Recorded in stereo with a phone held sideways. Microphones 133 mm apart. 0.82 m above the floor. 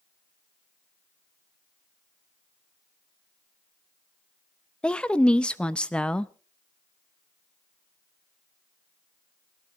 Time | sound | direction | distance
4.8 | a woman speaking | 5° left (ahead or behind) | 0.6 m